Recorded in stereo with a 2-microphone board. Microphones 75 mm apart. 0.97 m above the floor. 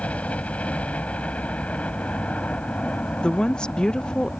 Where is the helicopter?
20° left (ahead or behind).